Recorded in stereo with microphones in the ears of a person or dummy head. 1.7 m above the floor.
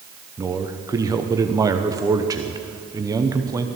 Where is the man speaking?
15° right (ahead or behind), 0.8 m.